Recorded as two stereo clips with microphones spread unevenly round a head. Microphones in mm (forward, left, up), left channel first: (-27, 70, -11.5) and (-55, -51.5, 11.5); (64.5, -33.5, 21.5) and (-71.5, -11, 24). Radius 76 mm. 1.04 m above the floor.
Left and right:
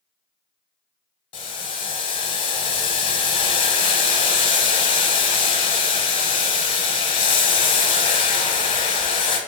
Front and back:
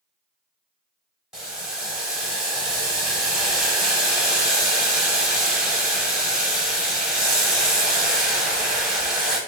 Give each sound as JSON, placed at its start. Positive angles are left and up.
{"t": 1.3, "sound": "boiling", "azimuth_deg": 85, "distance_m": 0.8}